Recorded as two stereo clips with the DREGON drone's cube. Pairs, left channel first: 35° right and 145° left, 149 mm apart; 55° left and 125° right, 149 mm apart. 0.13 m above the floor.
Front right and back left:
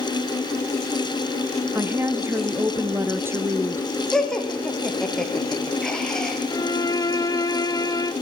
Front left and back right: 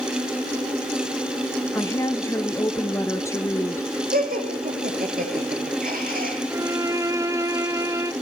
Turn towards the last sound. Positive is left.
turn(degrees=-75)